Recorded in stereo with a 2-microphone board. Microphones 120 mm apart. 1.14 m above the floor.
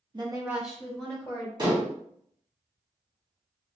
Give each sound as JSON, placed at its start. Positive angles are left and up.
{"t": 0.1, "sound": "a woman speaking", "side_deg": -40, "distance_m": 0.7}
{"t": 1.6, "sound": "dishes clattering", "side_deg": -35, "distance_m": 1.2}